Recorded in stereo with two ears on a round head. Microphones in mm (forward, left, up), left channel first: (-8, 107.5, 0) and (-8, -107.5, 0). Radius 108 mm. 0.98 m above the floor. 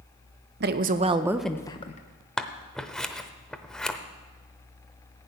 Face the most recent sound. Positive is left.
turn(degrees=5)  # may be behind; listen again after turning